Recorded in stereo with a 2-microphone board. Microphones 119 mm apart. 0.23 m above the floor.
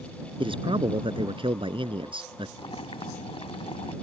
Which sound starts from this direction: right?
A man speaking, at 0.4 s.